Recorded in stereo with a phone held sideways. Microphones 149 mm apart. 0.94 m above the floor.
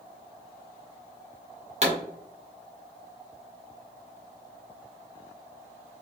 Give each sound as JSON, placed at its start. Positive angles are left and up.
{"t": 1.8, "sound": "a pop", "side_deg": -50, "distance_m": 1.3}